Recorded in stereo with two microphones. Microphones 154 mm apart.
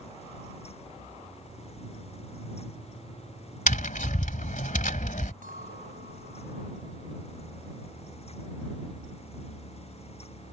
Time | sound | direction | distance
3.7 | tapping | 55° left (ahead or behind) | ?
5.4 | a clink | 60° right (ahead or behind) | ?